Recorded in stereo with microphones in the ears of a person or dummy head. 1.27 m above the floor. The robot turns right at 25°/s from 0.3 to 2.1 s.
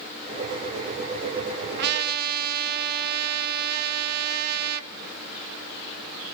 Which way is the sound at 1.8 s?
60° right (ahead or behind).